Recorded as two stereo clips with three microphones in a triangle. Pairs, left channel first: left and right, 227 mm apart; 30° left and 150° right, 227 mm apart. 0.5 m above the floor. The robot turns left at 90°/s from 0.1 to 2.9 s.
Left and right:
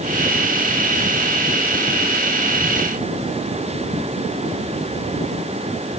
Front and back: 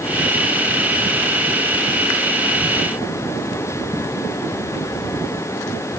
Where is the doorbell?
I don't hear a doorbell.